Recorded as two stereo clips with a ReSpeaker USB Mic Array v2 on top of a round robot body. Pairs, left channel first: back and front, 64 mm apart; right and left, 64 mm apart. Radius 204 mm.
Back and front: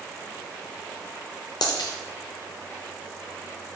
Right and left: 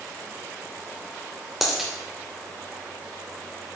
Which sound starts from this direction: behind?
A dropped coin, at 1.6 s.